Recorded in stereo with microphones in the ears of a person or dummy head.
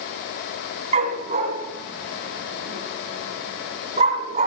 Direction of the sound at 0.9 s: 40° right (ahead or behind).